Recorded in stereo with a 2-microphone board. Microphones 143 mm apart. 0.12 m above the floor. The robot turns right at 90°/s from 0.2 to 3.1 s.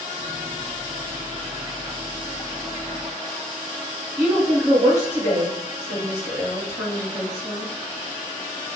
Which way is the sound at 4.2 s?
5° right (ahead or behind).